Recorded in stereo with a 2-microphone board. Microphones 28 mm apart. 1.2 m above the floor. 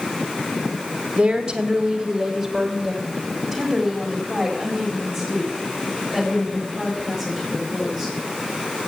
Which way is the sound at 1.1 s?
25° right (ahead or behind).